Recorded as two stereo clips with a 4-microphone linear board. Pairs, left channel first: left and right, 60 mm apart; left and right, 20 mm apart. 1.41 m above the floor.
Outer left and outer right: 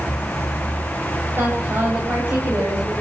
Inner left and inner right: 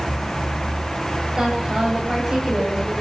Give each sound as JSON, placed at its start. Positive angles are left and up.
{"t": 1.4, "sound": "a woman speaking", "side_deg": -35, "distance_m": 9.0}